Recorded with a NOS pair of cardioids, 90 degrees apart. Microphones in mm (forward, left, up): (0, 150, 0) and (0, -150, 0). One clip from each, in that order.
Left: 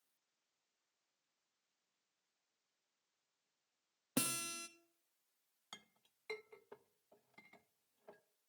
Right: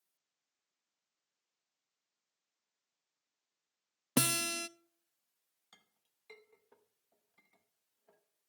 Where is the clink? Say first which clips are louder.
Left 9 dB; 45° left, 0.6 m.